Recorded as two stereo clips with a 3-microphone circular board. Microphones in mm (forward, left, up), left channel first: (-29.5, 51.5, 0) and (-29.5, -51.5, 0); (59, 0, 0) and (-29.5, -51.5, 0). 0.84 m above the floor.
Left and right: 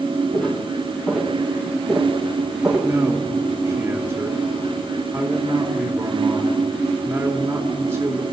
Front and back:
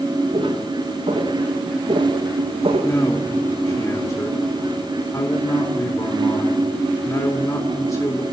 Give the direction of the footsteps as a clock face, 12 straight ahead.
6 o'clock.